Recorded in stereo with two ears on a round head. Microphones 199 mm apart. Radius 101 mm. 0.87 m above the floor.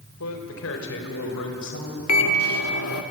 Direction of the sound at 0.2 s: 70° left (ahead or behind).